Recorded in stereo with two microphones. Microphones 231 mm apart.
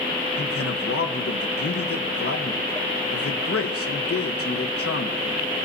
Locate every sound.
0.4 s a man speaking: 80° left, 1.1 m